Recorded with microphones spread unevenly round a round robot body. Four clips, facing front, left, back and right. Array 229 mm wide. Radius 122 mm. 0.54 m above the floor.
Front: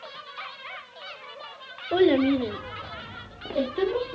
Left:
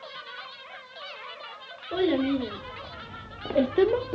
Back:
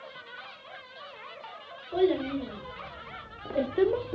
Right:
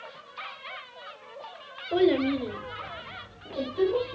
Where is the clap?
I don't hear a clap.